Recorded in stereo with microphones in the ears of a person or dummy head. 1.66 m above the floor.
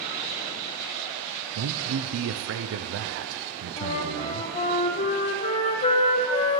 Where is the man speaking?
70° right (ahead or behind), 0.8 m.